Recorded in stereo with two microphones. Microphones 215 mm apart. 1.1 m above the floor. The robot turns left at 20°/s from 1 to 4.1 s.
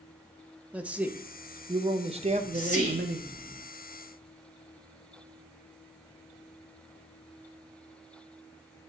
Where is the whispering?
45° left (ahead or behind), 1.9 m; by 3.6 s 20° left (ahead or behind), 1.9 m.